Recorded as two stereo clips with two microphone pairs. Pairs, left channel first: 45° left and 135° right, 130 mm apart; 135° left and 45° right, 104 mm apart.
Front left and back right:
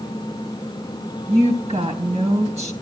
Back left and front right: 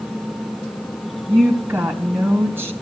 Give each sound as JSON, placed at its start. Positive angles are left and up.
{"t": 1.3, "sound": "a woman speaking", "azimuth_deg": -115, "distance_m": 3.0}